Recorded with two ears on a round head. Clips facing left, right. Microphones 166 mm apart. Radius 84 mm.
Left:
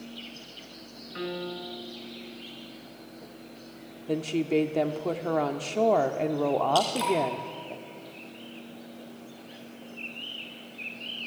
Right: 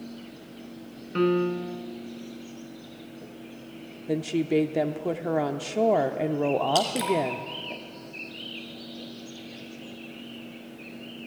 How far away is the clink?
I don't hear a clink.